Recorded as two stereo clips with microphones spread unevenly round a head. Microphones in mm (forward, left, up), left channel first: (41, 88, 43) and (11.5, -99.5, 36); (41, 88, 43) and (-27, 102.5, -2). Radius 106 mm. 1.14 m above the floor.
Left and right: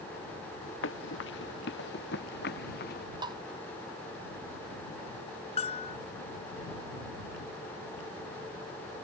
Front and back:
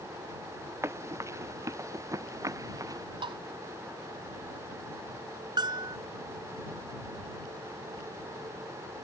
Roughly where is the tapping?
Behind.